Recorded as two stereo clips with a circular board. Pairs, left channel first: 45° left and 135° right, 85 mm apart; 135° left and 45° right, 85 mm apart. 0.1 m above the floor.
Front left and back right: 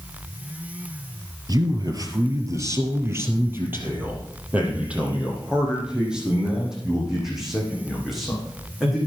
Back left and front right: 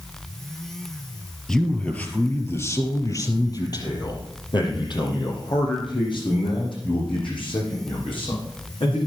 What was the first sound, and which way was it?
A man speaking, 145° right.